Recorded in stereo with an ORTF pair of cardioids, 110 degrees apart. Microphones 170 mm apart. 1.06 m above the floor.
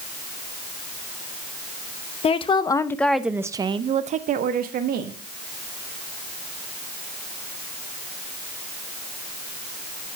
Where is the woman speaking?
35° left, 0.9 m; by 5.2 s 65° right, 1.2 m.